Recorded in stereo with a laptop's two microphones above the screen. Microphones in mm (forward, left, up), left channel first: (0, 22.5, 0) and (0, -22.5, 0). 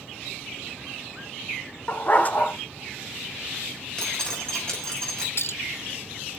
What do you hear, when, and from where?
1.9 s a dog barking: 35° left (ahead or behind), 1.0 m
4.0 s dripping: 15° left (ahead or behind), 6 m
5.4 s a clink: 60° left (ahead or behind), 0.6 m